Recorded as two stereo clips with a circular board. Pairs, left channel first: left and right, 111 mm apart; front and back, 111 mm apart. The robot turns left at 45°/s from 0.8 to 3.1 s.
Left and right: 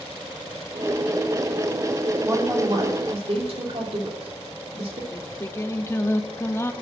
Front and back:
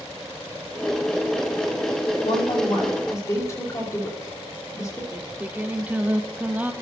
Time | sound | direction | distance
2.2 | a woman speaking | 20° right | 2.5 m
5.1 | singing | 125° left | 0.6 m